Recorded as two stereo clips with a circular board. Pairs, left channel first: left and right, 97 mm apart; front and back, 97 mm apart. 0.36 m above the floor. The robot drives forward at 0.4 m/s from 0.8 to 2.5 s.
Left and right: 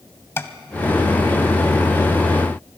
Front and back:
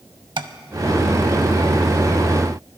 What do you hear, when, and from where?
0.4 s tapping: 150° left, 0.7 m